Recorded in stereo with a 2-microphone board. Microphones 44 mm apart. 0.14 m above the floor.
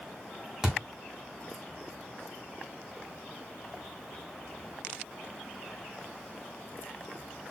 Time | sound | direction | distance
0.6 | a thud | 15° right (ahead or behind) | 1.3 m